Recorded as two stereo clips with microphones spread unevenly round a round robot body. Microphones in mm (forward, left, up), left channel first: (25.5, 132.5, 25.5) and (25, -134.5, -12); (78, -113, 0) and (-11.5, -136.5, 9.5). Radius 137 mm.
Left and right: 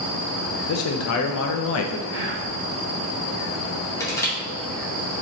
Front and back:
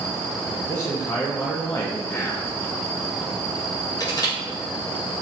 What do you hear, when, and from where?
0.7 s a man speaking: 75° left, 0.5 m
2.1 s whispering: 50° right, 1.8 m
4.0 s crushing: 5° left, 1.3 m